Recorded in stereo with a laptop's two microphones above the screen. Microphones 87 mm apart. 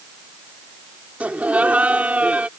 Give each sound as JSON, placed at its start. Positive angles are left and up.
{"t": 1.2, "sound": "laughter", "side_deg": -20}